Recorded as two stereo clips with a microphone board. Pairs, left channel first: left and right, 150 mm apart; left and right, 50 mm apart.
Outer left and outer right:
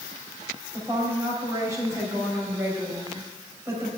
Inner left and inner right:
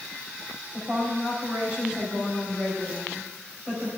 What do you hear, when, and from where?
0.7 s a woman speaking: 20° right (ahead or behind), 3.5 m